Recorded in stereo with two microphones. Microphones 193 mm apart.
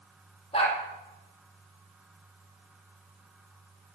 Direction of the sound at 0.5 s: 30° left (ahead or behind).